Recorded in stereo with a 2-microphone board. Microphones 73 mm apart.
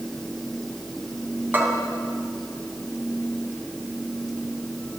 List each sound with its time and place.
1.5 s a bell: 30° right (ahead or behind), 3 m